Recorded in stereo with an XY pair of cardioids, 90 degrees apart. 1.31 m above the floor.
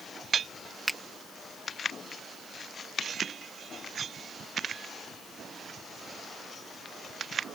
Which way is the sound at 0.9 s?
Straight ahead.